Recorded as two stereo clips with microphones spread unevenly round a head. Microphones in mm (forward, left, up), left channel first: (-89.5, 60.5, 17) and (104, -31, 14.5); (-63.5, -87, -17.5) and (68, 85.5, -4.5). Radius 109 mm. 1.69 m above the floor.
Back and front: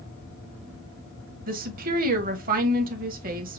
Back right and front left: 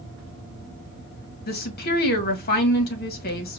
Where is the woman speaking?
80° right, 1.7 m.